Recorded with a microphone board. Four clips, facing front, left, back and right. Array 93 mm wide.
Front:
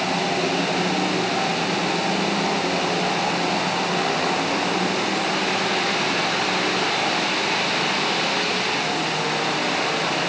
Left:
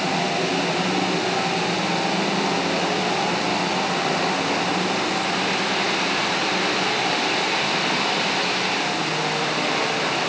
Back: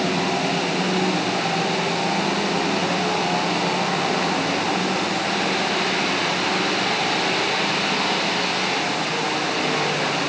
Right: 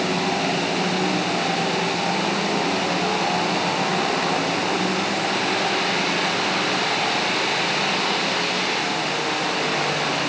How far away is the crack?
No crack in this recording.